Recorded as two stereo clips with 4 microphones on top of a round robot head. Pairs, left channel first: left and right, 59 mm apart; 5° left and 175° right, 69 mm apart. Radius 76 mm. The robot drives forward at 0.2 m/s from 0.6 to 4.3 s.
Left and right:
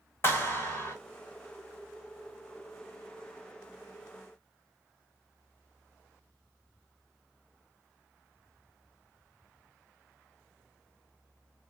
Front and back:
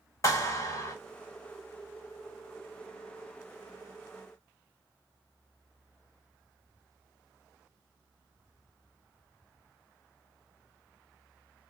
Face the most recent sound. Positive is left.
turn(degrees=70)